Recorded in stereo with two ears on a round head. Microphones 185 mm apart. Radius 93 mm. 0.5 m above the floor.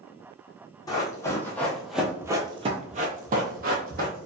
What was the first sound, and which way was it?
Running footsteps, 20° left (ahead or behind).